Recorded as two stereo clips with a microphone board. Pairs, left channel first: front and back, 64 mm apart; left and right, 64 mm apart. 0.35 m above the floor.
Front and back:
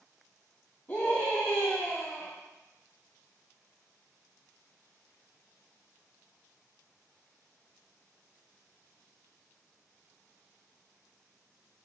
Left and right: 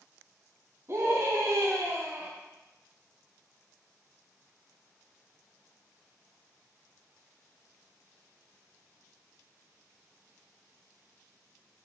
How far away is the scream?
About 2.5 m.